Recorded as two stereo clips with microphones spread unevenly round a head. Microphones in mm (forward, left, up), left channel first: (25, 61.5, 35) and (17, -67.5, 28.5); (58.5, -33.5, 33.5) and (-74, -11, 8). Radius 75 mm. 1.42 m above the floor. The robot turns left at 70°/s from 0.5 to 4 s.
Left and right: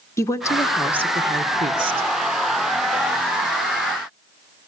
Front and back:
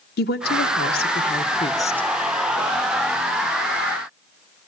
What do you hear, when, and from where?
0.2 s a woman speaking: 15° left, 1.4 m; by 2.1 s 95° right, 1.4 m